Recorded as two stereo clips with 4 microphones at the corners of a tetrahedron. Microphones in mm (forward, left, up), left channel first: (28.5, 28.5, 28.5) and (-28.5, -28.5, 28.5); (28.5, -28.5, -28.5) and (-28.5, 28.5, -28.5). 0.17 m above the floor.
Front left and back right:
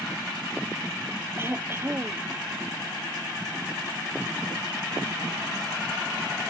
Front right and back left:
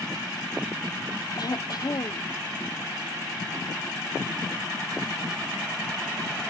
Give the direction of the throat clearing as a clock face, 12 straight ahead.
3 o'clock.